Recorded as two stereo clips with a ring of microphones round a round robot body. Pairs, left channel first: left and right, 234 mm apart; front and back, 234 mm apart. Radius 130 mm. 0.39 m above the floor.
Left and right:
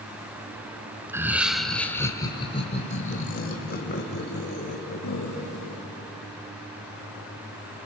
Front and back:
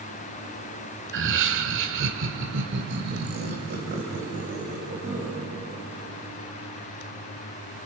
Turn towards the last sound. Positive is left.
turn(degrees=115)